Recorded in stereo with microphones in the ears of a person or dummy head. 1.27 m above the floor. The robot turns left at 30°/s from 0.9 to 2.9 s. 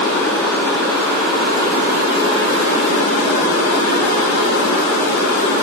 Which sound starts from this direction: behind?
Running water, at 0.0 s.